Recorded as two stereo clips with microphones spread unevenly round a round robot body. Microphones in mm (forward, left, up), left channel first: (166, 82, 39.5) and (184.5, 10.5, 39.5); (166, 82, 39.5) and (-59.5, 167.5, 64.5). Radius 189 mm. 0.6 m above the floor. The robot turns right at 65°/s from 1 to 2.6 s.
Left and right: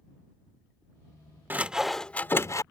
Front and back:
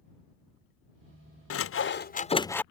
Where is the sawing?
10° right; by 2.6 s 60° left.